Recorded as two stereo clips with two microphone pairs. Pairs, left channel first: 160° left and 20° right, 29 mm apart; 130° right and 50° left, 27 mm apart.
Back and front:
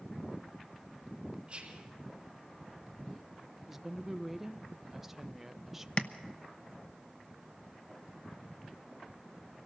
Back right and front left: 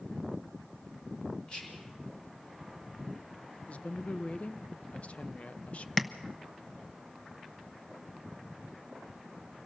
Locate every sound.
1.5 s whispering: 75° right, 3.5 m
3.7 s a woman speaking: 100° right, 0.9 m
6.0 s tapping: 150° left, 0.9 m